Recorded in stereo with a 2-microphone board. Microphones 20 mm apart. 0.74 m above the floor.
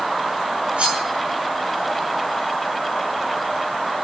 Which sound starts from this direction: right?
Cutlery clinking, at 0.8 s.